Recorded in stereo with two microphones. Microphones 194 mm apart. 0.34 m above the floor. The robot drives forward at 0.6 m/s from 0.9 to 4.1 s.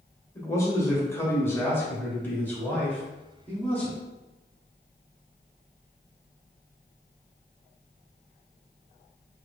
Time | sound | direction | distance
0.3 | a man speaking | 15° left (ahead or behind) | 1.1 m